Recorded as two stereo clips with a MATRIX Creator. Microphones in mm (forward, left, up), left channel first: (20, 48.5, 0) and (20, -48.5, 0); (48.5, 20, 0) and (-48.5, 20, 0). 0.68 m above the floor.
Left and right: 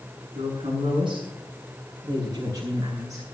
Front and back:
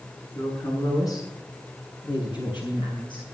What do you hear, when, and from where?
0.3 s a woman speaking: 60° right, 7 m; by 3.2 s 35° right, 8.5 m